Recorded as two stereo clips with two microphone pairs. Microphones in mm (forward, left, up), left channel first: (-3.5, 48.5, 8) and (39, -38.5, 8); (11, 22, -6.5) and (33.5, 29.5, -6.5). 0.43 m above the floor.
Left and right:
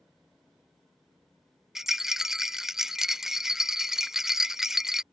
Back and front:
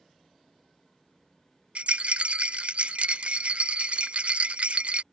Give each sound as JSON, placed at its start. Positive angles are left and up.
{"t": 1.8, "sound": "a rattle", "azimuth_deg": 20}